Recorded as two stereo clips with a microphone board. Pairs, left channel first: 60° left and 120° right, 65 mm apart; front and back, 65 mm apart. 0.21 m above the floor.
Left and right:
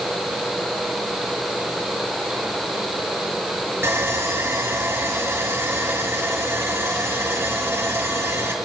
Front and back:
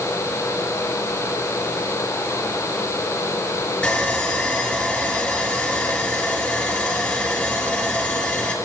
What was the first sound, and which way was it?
Sawing, 70° right.